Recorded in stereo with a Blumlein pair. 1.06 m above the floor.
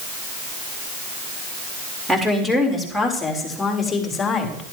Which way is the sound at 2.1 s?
10° right.